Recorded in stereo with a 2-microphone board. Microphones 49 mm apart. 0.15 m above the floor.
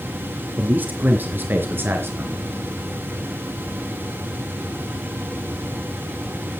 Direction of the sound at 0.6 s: 40° right (ahead or behind).